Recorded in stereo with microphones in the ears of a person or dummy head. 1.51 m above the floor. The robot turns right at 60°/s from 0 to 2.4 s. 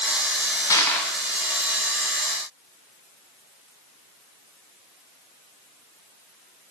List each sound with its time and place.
0.7 s crushing: 20° left (ahead or behind), 1.2 m; by 1.1 s centre (ahead or behind), 1.2 m